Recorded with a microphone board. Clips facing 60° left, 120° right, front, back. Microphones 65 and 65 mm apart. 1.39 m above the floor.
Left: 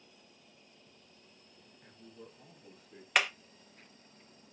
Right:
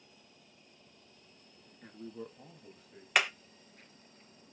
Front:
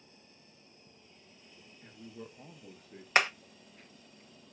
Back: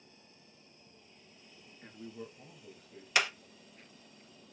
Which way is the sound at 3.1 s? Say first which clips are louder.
Even, front 4 dB; 35° right.